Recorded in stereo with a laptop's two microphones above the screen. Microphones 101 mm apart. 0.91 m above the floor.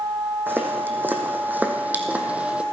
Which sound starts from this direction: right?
Footsteps, at 0.5 s.